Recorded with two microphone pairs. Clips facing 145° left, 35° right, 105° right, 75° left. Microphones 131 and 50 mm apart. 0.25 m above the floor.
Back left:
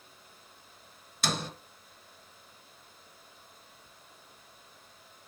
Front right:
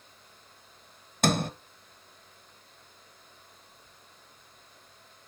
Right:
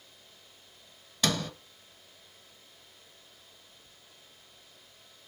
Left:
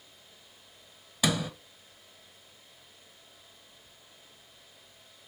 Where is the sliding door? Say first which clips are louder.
Front right 8 dB, left 1 dB; 5° right, 0.7 m.